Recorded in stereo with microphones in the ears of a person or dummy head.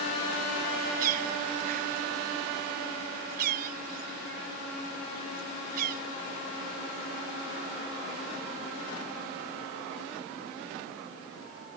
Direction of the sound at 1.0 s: 50° right (ahead or behind).